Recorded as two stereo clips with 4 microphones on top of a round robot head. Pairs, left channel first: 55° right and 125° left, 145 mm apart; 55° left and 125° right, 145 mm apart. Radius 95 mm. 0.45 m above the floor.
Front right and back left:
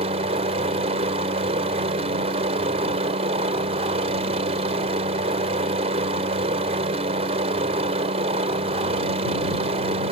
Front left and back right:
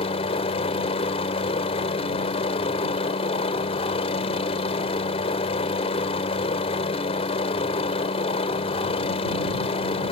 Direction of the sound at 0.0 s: 90° left.